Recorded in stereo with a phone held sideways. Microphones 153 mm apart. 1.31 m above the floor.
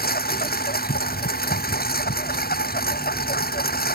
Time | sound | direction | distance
0.0 | a lawn mower | 90° left | ?